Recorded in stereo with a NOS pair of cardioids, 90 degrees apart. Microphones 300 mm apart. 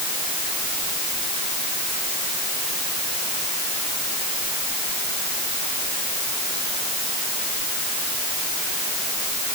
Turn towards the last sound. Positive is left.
No sound to turn to.